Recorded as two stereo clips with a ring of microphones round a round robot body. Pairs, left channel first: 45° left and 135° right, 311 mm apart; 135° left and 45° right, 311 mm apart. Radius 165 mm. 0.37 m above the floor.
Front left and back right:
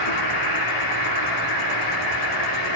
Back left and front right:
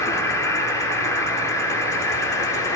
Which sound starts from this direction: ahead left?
An insect, at 0.0 s.